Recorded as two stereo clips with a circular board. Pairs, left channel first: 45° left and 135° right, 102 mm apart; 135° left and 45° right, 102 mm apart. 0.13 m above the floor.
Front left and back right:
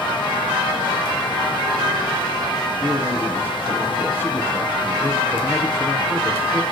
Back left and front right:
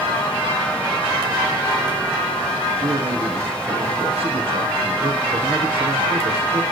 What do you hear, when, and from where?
2.8 s a man speaking: 25° right, 4.5 m